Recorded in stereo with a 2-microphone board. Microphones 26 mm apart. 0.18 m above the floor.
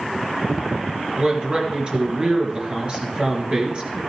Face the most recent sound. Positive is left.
turn(degrees=-40)  # may be behind; listen again after turning